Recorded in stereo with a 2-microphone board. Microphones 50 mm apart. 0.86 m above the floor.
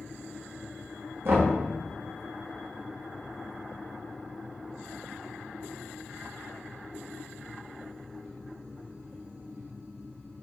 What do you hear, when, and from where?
1.2 s knocking: 60° right (ahead or behind), 1.2 m